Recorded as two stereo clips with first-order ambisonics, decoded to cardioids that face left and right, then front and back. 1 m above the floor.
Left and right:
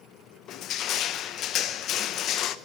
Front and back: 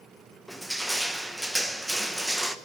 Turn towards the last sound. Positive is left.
turn(degrees=90)